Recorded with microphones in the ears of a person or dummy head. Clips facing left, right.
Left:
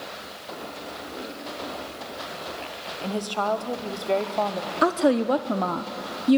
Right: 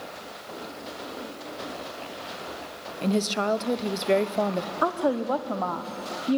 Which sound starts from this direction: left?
A woman speaking, at 4.8 s.